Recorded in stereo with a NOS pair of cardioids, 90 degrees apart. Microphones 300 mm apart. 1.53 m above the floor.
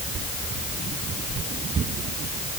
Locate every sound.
Only background noise.